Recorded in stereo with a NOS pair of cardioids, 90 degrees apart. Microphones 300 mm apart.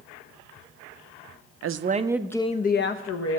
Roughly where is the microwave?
I don't hear a microwave.